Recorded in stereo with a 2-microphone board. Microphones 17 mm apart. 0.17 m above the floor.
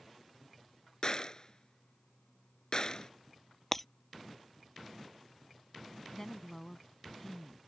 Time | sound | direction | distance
1.0 | a gunshot | 40° left (ahead or behind) | ?
3.7 | breaking glass | 15° left (ahead or behind) | ?
6.1 | a woman speaking | 25° left (ahead or behind) | ?